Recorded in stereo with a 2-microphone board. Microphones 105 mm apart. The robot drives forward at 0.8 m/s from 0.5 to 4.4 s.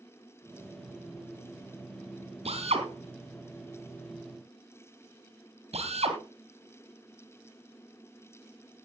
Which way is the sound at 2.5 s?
70° right (ahead or behind).